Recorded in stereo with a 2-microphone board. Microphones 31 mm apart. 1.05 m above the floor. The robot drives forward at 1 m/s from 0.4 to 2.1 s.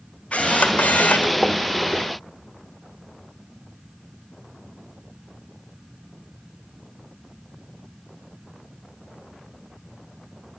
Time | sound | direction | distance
0.3 | a camera shutter | 55° left (ahead or behind) | 1.7 m